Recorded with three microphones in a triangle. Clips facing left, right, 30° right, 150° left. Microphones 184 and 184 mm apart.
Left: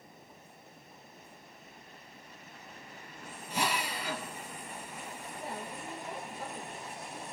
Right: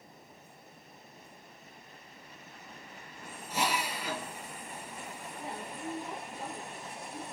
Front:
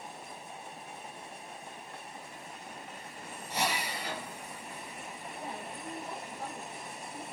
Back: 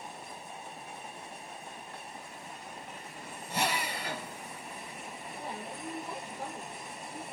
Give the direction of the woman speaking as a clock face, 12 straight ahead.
5 o'clock.